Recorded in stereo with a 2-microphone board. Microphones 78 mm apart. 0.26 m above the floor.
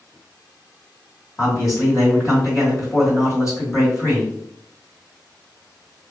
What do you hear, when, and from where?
1.4 s a man speaking: 45° left (ahead or behind), 1.9 m